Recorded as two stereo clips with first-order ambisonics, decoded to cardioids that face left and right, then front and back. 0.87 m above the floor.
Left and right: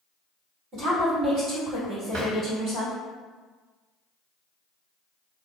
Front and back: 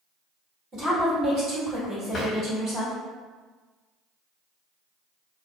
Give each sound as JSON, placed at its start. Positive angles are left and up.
{"t": 0.7, "sound": "a woman speaking", "azimuth_deg": -125, "distance_m": 1.8}
{"t": 2.1, "sound": "a drawer", "azimuth_deg": -60, "distance_m": 1.0}